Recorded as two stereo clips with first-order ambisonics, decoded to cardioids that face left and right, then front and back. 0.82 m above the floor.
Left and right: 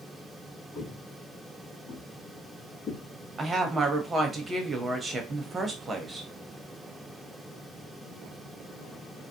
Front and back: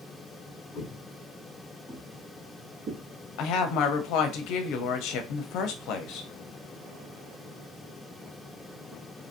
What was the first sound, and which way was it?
Footsteps, 40° left.